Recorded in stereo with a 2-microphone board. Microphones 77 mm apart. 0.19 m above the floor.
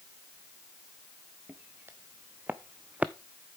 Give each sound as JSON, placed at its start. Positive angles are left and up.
{"t": 1.5, "sound": "footsteps", "side_deg": -30, "distance_m": 1.6}